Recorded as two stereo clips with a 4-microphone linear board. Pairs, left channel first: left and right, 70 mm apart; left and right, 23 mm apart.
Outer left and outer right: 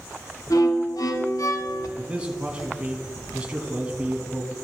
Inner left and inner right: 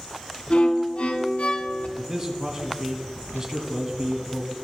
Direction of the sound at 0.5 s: 60° left (ahead or behind).